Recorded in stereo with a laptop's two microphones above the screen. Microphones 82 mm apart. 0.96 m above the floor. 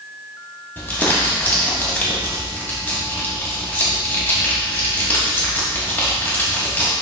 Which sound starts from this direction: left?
Crumpling, at 0.8 s.